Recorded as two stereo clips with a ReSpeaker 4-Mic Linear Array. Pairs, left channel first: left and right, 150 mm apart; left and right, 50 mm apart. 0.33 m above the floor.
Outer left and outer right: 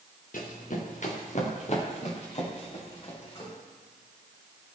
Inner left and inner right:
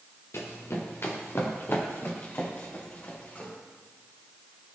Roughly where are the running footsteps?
Left.